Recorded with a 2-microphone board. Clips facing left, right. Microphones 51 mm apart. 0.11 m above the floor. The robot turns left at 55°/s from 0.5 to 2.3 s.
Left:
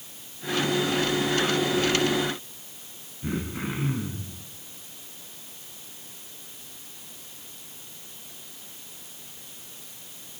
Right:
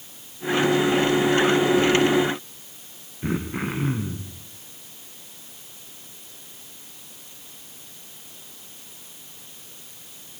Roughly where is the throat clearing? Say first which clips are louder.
Right 4 dB; right.